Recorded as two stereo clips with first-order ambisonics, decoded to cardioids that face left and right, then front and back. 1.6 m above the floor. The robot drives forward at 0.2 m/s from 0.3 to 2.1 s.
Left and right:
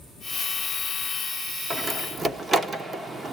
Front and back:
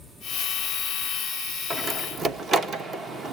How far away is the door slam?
About 0.7 m.